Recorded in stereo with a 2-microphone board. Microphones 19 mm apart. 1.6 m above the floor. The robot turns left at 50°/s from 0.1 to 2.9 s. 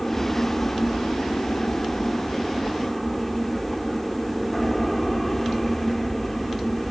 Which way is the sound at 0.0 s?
150° left.